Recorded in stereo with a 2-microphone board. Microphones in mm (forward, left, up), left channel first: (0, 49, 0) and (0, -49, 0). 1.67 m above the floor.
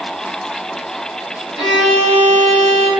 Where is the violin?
50° left (ahead or behind), 1.3 m.